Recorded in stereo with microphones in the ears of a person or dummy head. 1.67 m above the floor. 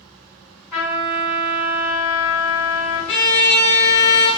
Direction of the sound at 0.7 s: 5° left (ahead or behind).